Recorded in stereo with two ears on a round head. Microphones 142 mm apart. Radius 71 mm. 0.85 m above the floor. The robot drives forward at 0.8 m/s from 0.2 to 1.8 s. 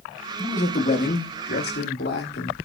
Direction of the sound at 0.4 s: 45° left (ahead or behind).